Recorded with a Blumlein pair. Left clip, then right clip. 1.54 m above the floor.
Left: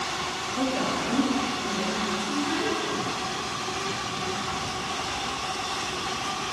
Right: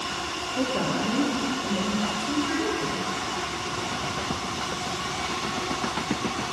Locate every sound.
0.6 s a woman speaking: 20° right, 2.0 m